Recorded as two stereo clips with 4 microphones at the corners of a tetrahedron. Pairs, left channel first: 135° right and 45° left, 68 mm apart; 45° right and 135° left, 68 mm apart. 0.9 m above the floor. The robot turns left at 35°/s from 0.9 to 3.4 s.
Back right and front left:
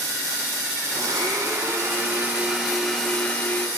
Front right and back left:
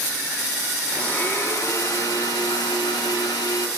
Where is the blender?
25° left, 0.9 m; by 3.7 s 65° right, 0.9 m.